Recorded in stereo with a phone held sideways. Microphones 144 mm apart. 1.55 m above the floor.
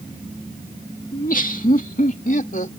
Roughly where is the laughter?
Left.